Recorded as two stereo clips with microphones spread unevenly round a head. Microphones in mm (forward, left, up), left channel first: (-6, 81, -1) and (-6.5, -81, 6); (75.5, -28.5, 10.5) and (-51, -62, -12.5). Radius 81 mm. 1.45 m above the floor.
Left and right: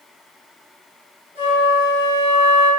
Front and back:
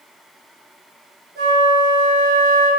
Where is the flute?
130° left, 1.6 m.